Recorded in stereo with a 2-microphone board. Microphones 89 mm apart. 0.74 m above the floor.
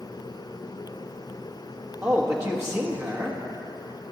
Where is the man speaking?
30° right (ahead or behind), 1.3 m.